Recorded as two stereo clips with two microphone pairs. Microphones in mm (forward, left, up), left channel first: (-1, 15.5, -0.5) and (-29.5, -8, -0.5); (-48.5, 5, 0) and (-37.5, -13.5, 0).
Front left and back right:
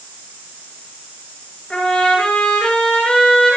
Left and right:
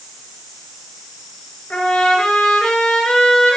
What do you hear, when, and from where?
1.7 s a trumpet: 105° left, 9.5 m